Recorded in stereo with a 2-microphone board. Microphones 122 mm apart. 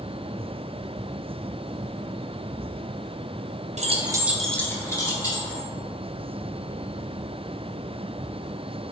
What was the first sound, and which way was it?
Keys jangling, 65° right (ahead or behind).